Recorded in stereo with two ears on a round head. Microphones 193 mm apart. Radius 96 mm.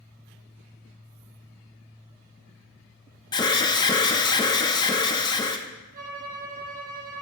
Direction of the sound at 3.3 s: 20° left (ahead or behind).